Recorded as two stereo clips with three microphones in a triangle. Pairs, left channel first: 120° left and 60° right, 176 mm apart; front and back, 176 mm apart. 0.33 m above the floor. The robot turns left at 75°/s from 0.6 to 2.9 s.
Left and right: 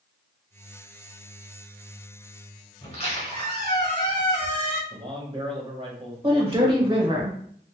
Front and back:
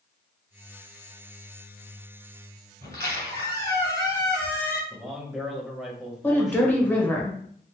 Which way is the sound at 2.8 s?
175° left.